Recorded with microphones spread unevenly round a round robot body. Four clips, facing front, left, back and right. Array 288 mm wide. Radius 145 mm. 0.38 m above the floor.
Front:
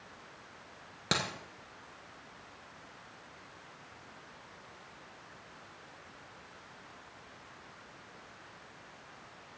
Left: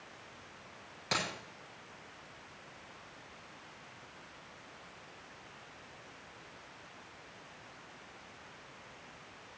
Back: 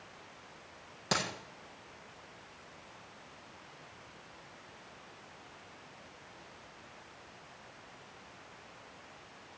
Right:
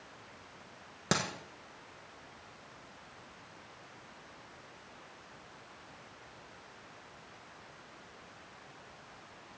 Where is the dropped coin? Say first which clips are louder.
Right 3 dB, even; 65° right, 1.6 m.